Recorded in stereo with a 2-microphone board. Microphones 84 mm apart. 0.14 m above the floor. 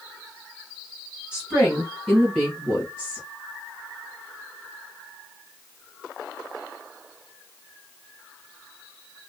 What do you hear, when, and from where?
1.3 s a woman speaking: 10° right (ahead or behind), 1.7 m; by 3.2 s 15° left (ahead or behind), 2 m